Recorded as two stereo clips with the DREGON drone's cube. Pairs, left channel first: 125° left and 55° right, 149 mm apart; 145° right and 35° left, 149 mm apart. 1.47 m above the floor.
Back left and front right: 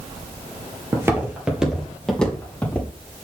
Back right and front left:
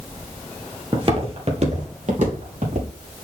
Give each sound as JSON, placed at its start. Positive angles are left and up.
{"t": 0.9, "sound": "footsteps", "azimuth_deg": 0, "distance_m": 1.9}